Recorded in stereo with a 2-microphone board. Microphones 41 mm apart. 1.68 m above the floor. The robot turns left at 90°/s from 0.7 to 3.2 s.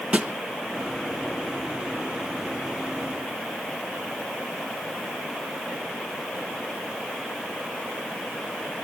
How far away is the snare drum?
About 1.7 m.